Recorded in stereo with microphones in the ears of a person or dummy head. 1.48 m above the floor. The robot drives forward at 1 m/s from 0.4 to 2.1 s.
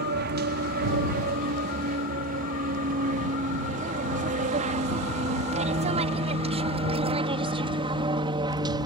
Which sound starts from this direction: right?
An aircraft, at 0.0 s.